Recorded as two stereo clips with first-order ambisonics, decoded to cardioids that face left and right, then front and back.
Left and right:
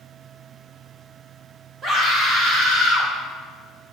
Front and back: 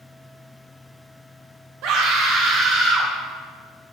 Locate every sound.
1.8 s a scream: 150° right, 2.0 m; by 3.1 s 115° right, 3 m